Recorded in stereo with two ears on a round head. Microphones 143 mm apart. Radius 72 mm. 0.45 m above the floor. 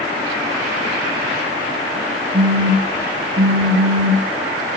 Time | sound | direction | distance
2.3 | a phone buzzing | 35° right (ahead or behind) | 1.3 m